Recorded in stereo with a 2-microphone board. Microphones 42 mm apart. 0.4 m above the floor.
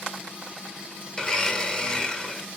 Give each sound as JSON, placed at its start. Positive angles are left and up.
{"t": 1.2, "sound": "a blender", "side_deg": 20, "distance_m": 1.4}